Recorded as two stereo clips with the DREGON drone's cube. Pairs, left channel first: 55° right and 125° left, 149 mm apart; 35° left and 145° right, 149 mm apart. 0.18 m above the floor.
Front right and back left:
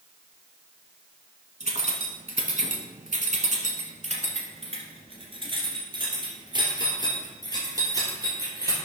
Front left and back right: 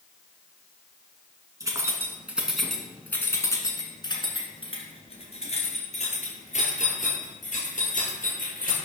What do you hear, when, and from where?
1.6 s keys jangling: 150° left, 1.4 m; by 8.8 s 55° left, 3.5 m